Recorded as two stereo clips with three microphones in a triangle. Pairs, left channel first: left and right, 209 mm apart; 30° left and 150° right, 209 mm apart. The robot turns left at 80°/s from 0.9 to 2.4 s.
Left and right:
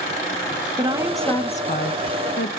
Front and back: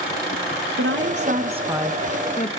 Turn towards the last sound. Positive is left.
turn(degrees=80)